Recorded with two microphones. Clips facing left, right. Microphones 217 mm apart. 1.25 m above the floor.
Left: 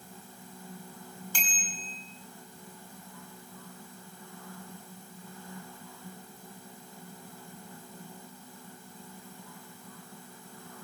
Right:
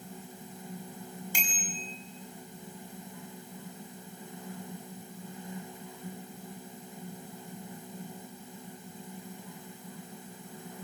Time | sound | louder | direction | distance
1.3 | a bicycle bell | right 3 dB | 15° right (ahead or behind) | 8 m